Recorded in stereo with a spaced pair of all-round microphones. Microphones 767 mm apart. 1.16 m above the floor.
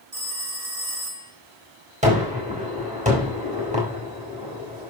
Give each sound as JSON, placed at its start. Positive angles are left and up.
{"t": 0.1, "sound": "a phone ringing", "side_deg": -50, "distance_m": 2.0}
{"t": 2.0, "sound": "a gunshot", "side_deg": -10, "distance_m": 4.5}